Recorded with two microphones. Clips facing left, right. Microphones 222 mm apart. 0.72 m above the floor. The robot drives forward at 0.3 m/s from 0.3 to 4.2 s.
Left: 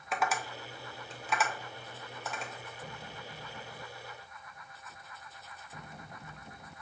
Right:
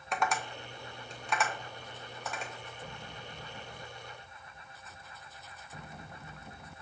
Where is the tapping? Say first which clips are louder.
Even; 5° left (ahead or behind), 0.5 m; by 2.5 s centre (ahead or behind), 1.1 m.